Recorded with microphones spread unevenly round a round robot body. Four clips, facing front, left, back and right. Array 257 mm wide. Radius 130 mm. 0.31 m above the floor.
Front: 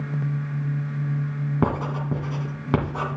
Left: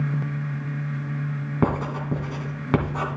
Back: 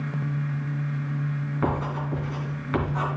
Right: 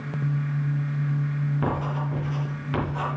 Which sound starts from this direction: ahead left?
Writing, at 1.6 s.